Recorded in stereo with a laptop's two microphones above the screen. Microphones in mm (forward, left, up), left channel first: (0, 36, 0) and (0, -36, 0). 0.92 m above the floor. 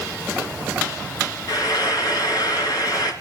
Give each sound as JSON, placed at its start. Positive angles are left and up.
{"t": 1.5, "sound": "frying", "side_deg": 60, "distance_m": 2.5}